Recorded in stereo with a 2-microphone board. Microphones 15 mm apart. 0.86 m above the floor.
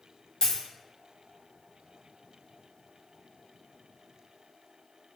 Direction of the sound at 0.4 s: 55° left (ahead or behind).